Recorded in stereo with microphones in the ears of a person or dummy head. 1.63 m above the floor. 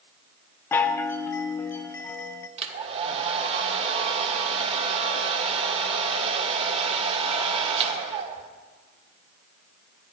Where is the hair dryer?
35° right (ahead or behind), 1.2 m.